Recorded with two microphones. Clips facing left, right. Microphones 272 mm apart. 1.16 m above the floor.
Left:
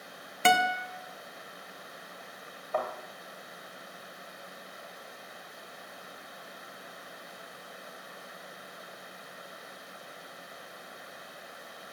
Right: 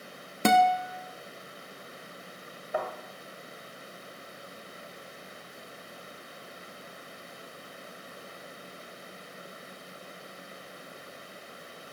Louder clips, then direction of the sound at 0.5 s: Right 5 dB; 45° right (ahead or behind).